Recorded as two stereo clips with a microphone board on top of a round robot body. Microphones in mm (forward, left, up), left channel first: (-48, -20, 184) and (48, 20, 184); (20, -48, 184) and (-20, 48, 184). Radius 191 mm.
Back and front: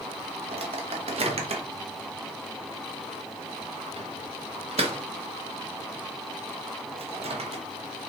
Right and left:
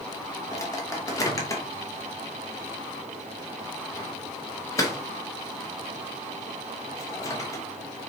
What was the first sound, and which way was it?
A microwave, 5° right.